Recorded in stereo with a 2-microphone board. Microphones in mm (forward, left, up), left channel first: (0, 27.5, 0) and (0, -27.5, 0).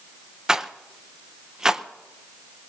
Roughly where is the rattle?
Centre.